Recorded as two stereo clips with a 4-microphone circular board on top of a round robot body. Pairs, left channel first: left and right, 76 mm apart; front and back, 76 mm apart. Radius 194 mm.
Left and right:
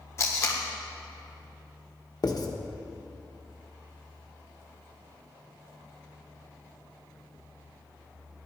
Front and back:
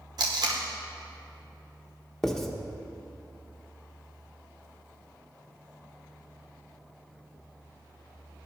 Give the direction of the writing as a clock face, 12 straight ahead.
9 o'clock.